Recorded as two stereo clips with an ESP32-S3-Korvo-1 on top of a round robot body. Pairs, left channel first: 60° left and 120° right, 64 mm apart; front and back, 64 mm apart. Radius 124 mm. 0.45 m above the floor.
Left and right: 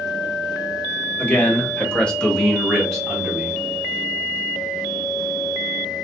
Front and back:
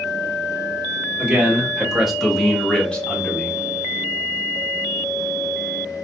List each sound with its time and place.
1.2 s a man speaking: 115° left, 1.3 m; by 3.6 s 45° right, 1.3 m